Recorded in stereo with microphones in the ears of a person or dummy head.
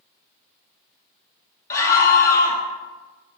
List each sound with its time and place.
1.7 s a scream: 15° left (ahead or behind), 1.2 m